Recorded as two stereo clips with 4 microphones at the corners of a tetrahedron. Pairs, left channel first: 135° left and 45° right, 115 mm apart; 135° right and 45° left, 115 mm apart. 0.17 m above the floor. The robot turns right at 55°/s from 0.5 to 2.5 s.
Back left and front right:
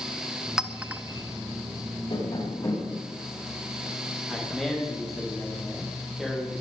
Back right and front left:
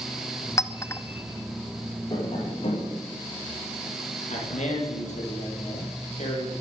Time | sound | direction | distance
0.6 | a clink | 125° right | 0.8 m
2.1 | tapping | 175° left | 8 m
4.3 | a man speaking | 135° right | 6 m